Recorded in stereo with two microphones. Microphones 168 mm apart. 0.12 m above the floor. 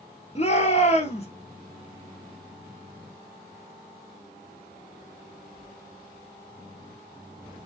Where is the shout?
40° left (ahead or behind), 2 m.